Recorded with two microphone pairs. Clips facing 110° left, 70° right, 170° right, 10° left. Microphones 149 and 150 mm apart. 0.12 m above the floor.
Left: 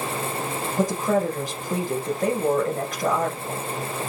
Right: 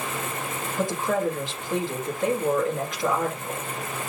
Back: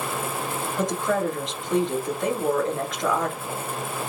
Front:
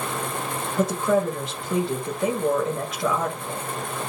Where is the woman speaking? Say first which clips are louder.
Left 3 dB, front 3 dB; 90° left, 1.7 m.